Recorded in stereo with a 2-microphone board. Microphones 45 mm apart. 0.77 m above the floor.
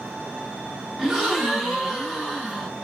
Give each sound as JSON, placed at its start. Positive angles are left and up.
{"t": 1.0, "sound": "a gasp", "side_deg": -5, "distance_m": 1.0}